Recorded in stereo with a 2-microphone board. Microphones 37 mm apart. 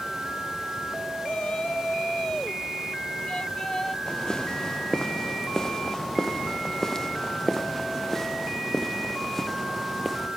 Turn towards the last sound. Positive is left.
turn(degrees=5)  # may be behind; listen again after turning